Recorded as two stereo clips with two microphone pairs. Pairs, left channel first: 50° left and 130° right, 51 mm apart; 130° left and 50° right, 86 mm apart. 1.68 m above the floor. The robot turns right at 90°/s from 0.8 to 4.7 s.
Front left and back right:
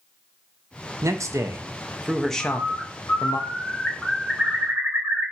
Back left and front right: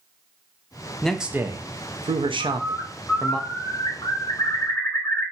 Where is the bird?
15° right, 0.8 m; by 5.3 s 165° right, 0.8 m.